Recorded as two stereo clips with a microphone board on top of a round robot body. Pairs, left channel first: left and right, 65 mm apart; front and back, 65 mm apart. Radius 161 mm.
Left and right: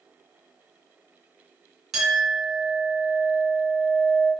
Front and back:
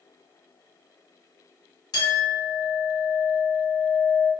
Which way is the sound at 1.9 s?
5° right.